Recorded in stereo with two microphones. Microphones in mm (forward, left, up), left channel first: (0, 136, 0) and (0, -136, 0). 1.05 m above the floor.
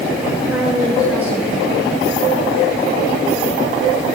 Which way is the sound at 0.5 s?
5° right (ahead or behind).